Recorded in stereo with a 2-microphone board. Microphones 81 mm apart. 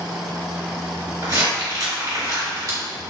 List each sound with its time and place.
1.2 s crumpling: 50° right (ahead or behind), 1.7 m